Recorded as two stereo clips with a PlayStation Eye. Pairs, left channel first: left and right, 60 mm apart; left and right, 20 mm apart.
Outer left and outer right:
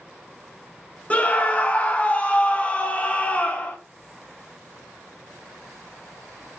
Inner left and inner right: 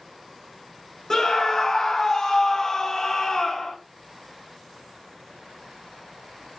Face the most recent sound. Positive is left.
turn(degrees=25)  # may be behind; listen again after turning